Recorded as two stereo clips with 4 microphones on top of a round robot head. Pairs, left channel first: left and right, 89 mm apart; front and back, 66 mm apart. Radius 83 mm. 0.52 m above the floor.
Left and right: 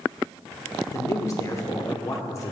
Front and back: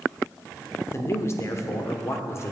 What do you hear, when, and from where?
0.9 s a man speaking: 40° left, 1.2 m